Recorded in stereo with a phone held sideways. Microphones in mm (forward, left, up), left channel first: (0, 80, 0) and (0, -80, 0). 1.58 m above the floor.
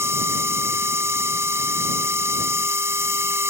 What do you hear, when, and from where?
0.0 s a machine running: 15° right (ahead or behind)